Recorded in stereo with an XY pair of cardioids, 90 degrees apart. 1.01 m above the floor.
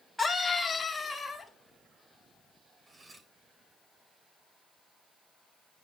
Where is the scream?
5° left, 2 m; by 1.5 s 35° left, 3 m.